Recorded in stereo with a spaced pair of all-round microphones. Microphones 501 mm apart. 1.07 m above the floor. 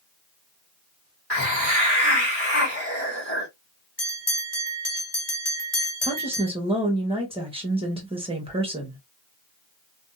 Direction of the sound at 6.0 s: 10° right (ahead or behind).